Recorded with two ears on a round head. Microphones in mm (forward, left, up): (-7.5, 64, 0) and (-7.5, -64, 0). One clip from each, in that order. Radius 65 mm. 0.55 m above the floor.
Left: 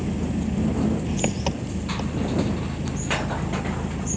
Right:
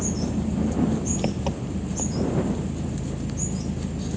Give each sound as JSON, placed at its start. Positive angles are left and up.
{"t": 0.0, "sound": "an engine running", "side_deg": 50}